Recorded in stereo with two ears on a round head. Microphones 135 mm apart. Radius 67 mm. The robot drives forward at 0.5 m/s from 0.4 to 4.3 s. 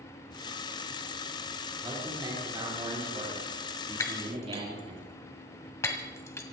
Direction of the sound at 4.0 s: 20° left (ahead or behind).